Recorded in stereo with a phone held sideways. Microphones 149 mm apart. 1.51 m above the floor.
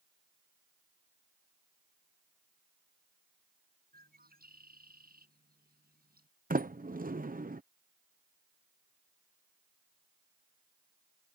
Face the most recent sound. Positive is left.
turn(degrees=-70)  # may be behind; listen again after turning